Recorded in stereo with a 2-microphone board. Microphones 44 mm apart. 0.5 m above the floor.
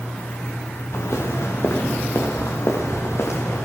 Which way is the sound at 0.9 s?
85° left.